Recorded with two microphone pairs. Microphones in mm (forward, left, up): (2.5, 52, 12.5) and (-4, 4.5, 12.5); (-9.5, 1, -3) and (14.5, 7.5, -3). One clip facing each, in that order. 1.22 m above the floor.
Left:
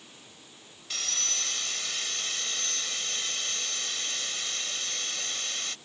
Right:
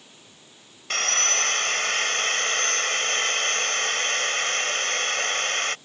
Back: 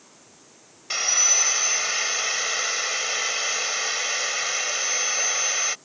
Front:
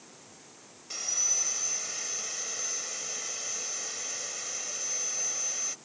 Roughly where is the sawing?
Behind right.